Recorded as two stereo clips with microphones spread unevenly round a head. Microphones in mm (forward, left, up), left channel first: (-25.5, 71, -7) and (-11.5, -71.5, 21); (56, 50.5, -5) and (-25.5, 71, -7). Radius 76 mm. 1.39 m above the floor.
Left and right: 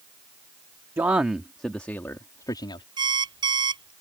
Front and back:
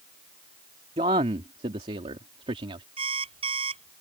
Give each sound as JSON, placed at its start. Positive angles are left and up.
{"t": 1.0, "sound": "a man speaking", "azimuth_deg": -160}
{"t": 3.0, "sound": "an alarm clock", "azimuth_deg": -145}